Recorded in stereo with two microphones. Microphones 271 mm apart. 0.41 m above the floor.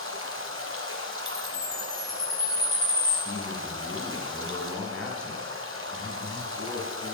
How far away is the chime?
About 7 m.